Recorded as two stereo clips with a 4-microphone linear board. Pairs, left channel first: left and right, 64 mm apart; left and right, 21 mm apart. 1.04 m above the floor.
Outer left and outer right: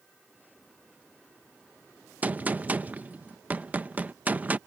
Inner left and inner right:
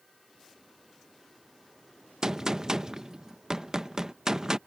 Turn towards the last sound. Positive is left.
turn(degrees=-25)  # may be behind; listen again after turning